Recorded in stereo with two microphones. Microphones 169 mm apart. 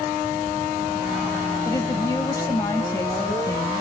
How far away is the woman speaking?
About 1.6 m.